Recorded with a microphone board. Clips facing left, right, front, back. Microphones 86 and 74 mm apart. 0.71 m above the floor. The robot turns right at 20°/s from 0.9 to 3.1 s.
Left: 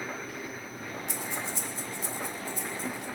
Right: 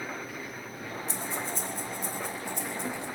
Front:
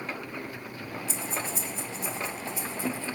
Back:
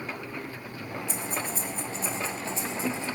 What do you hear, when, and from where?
1.1 s breathing: 145° right, 1.2 m; by 3.1 s 105° right, 1.2 m